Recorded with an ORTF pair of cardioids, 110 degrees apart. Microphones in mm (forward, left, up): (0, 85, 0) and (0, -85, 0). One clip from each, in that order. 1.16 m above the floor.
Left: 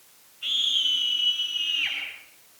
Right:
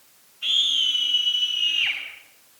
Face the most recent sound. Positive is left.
turn(degrees=-20)